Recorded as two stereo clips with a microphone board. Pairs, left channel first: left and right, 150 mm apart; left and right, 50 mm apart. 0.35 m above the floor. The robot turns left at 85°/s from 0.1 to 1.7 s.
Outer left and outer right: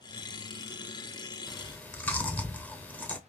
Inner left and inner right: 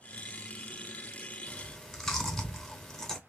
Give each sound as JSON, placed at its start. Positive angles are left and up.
{"t": 1.5, "sound": "chewing", "side_deg": 0, "distance_m": 0.9}